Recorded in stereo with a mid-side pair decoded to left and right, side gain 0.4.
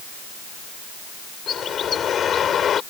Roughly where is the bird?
Ahead left.